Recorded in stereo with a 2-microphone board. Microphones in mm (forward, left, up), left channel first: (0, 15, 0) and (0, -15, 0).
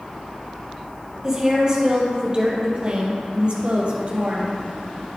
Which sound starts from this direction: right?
A woman speaking, at 1.2 s.